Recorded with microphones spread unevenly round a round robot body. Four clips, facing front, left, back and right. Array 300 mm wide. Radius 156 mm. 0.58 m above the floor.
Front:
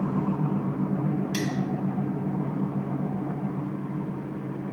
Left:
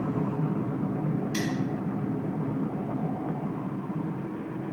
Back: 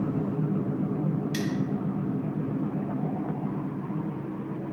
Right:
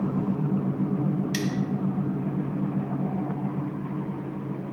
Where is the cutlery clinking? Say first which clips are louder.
Right 1 dB, front 1 dB; 75° right, 1.0 m.